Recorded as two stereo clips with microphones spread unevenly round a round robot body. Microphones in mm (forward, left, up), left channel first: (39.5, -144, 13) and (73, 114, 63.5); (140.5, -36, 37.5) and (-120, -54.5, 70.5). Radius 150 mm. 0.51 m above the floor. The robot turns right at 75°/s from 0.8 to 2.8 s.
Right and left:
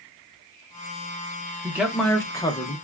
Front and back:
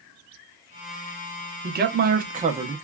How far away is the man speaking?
About 0.8 m.